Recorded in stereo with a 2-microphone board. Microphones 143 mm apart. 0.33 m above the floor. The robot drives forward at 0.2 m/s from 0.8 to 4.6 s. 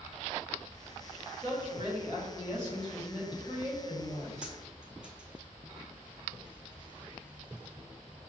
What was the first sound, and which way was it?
A woman speaking, 35° right (ahead or behind).